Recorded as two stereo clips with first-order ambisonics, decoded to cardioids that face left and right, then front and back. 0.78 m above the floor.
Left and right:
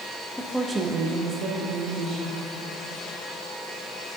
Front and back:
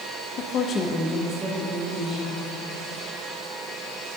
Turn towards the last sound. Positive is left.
turn(degrees=-130)